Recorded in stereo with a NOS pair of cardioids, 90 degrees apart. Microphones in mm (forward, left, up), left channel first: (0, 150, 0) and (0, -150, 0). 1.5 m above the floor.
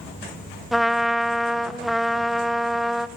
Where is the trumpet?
Straight ahead, 1.2 m.